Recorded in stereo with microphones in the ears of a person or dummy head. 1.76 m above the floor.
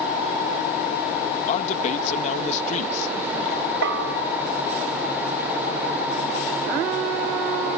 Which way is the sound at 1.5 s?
40° left (ahead or behind).